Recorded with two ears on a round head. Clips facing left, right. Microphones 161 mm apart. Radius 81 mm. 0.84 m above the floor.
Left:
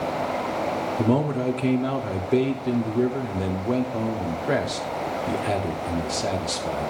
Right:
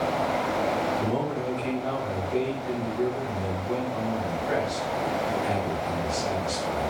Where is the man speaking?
70° left (ahead or behind), 2 m.